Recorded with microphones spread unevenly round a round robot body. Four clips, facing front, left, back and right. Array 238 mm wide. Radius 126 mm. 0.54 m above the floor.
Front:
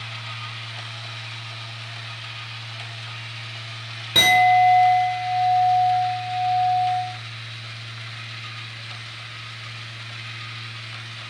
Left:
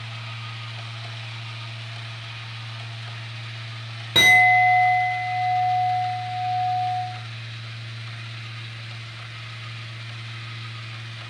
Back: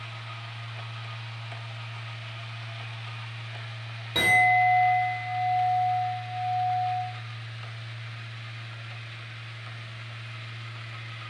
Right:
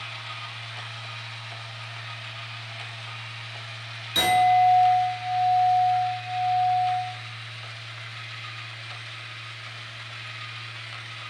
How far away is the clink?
About 1.5 m.